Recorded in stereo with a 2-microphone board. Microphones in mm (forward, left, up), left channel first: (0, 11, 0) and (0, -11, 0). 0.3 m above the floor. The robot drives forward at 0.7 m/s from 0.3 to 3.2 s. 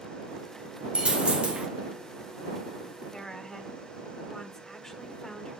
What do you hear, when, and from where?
0.9 s a dropped coin: 45° right (ahead or behind), 2 m; by 1.7 s 60° right (ahead or behind), 1.8 m
3.1 s a woman speaking: 10° left (ahead or behind), 1.4 m